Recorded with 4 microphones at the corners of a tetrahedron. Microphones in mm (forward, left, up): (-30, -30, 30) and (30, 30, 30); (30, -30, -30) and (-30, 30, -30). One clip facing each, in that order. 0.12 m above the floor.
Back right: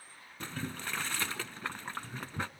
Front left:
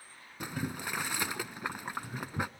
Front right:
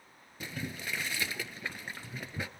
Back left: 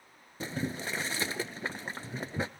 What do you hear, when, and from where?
0.4 s boiling: 115° left, 0.6 m